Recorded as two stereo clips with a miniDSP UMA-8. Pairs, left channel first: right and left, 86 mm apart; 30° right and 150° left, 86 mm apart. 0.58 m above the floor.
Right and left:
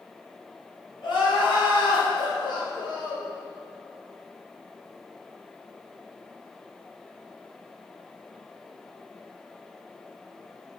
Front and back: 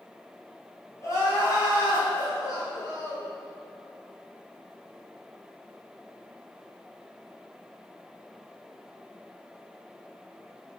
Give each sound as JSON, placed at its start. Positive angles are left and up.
{"t": 1.0, "sound": "crying", "azimuth_deg": -80, "distance_m": 3.5}